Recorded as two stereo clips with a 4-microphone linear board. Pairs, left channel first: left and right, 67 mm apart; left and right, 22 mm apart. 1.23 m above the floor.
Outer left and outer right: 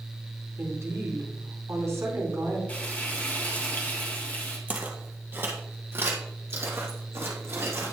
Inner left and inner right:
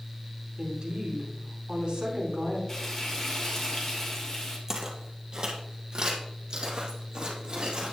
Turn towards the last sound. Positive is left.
turn(degrees=-45)  # may be behind; listen again after turning